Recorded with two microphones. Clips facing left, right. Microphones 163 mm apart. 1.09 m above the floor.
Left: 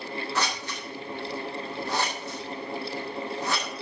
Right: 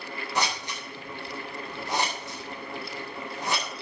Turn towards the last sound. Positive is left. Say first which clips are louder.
# right 4 dB
turn(degrees=-15)  # may be behind; listen again after turning